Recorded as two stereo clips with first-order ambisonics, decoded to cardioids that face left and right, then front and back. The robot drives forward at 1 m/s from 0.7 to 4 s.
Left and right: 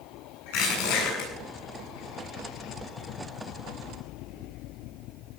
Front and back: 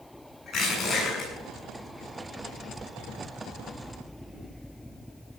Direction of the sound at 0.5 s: 70° left.